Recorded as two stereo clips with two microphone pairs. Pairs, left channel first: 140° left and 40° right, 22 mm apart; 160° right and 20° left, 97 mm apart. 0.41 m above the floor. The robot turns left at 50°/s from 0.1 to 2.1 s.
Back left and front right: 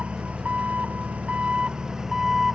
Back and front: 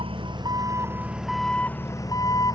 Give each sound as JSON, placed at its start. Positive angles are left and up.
{"t": 0.0, "sound": "an engine running", "azimuth_deg": -5}